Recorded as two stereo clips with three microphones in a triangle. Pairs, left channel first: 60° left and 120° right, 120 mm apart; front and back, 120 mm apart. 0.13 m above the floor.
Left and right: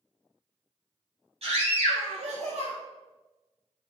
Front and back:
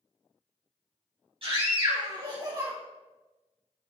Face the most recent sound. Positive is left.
turn(degrees=-125)